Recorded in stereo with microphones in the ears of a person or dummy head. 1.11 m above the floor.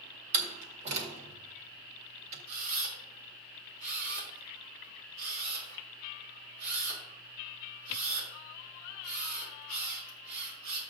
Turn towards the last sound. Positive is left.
turn(degrees=-60)  # may be behind; listen again after turning